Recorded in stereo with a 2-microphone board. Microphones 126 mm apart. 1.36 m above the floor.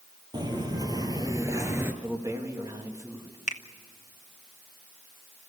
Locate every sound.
0.3 s footsteps: 35° right (ahead or behind), 2.5 m; by 1.9 s 20° right (ahead or behind), 1.4 m
2.0 s a man speaking: 25° right (ahead or behind), 2.5 m
3.5 s a finger snap: 70° left (ahead or behind), 0.9 m